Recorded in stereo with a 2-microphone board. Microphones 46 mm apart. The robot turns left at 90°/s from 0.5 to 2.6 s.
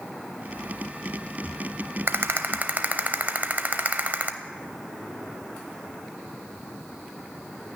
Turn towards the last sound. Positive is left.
turn(degrees=-130)